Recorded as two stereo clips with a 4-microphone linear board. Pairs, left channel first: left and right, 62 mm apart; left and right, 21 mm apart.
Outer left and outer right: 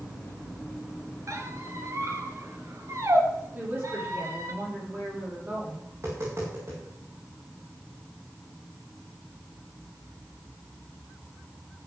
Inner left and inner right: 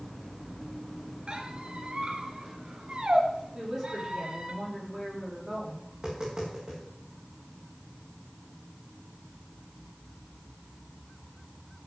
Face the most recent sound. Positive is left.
turn(degrees=-50)  # may be behind; listen again after turning